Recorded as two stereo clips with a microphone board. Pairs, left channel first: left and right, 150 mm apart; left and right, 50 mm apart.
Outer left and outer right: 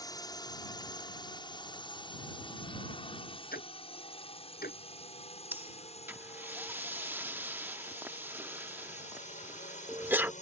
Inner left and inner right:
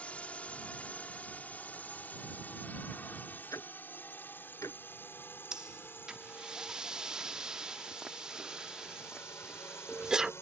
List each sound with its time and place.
0.0 s a drone: 25° left (ahead or behind); by 10.4 s 55° left (ahead or behind)
3.5 s ticking: 85° left
5.5 s breathing: 15° right (ahead or behind)